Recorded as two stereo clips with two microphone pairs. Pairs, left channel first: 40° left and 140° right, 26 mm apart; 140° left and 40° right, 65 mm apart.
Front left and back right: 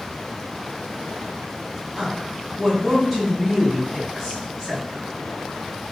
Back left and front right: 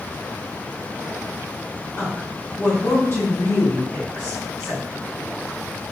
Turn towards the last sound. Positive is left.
turn(degrees=135)